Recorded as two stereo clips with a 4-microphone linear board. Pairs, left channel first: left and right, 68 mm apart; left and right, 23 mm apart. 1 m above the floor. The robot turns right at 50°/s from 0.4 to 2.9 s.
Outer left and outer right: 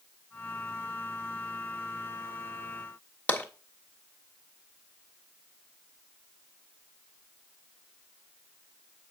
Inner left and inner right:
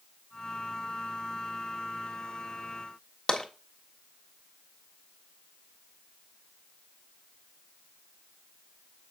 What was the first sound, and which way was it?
Tapping, 25° left (ahead or behind).